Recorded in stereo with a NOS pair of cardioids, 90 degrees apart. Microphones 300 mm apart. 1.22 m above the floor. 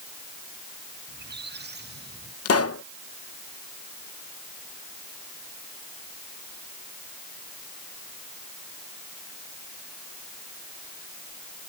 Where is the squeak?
35° right.